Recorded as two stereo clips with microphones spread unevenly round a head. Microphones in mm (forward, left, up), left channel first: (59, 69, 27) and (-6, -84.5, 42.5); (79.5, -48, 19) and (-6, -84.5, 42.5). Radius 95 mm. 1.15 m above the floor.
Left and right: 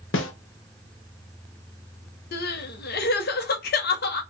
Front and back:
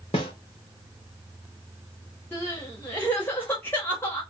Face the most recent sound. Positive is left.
turn(degrees=95)